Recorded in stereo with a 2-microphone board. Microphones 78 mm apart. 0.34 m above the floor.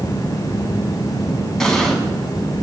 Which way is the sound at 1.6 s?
10° left (ahead or behind).